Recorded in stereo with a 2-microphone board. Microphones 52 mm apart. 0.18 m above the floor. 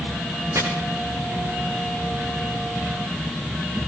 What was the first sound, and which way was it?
Chopping, 65° right (ahead or behind).